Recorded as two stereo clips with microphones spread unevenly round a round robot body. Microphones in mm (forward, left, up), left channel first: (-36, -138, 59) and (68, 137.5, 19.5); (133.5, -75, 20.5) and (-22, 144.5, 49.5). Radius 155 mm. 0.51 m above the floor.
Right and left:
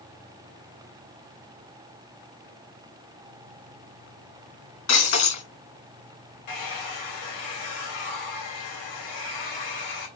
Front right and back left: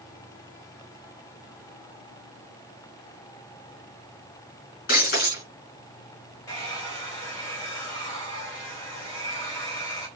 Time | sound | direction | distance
4.9 | breaking glass | 115° right | 4 m
6.5 | a hair dryer | 130° right | 3.5 m